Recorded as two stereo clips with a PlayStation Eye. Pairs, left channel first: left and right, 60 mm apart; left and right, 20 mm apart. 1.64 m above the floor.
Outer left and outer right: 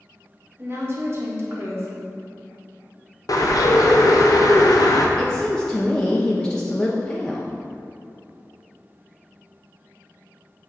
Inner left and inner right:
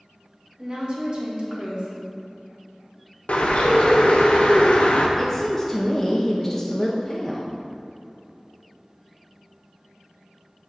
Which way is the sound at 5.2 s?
10° left (ahead or behind).